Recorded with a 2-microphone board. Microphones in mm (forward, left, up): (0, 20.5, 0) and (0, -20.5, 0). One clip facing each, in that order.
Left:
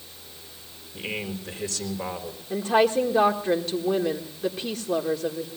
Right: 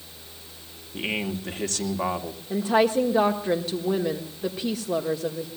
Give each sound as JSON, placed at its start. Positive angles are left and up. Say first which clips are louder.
{"t": 0.9, "sound": "a man speaking", "louder": "right 3 dB", "side_deg": -75, "distance_m": 2.5}
{"t": 2.5, "sound": "a woman speaking", "louder": "even", "side_deg": -5, "distance_m": 1.4}